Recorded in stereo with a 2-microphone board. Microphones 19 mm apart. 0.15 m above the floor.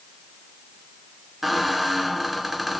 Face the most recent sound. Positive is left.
turn(degrees=-10)  # may be behind; listen again after turning